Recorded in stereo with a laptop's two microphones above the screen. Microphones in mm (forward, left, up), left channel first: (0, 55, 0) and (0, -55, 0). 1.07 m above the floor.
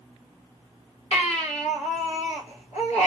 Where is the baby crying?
85° left, 1.2 m.